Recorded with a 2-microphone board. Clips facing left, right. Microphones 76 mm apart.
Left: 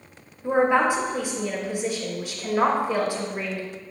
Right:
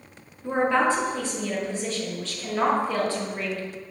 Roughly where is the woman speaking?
Centre.